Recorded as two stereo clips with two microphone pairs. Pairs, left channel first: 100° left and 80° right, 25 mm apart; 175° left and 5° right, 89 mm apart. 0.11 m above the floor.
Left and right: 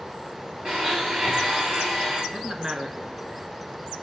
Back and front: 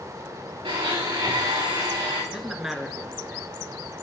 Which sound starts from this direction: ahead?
A blender, at 0.7 s.